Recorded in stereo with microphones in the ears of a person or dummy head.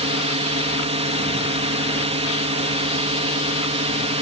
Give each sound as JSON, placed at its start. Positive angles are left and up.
{"t": 0.0, "sound": "a drone", "side_deg": -30}